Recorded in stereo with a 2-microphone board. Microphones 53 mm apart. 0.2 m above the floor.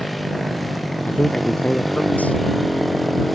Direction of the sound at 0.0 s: Centre (ahead or behind).